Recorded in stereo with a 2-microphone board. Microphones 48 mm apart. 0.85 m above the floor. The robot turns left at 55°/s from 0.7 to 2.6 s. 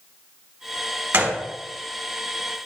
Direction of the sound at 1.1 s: 50° right (ahead or behind).